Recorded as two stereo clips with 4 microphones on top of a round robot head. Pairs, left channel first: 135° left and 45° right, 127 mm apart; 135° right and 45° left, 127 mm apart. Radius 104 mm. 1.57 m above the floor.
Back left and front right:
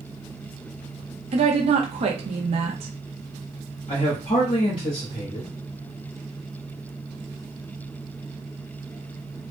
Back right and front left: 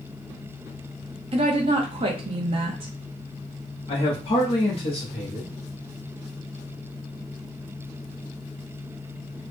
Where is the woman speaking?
5° right, 0.7 m.